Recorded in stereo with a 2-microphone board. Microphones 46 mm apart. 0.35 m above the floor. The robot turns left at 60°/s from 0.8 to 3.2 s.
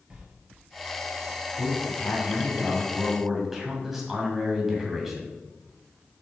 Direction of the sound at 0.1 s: 20° right (ahead or behind).